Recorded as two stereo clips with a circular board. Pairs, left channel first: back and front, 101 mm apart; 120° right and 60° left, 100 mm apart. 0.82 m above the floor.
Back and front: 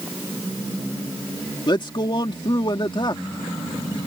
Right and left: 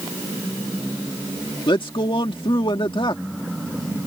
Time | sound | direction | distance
1.7 | a man speaking | 150° right | ?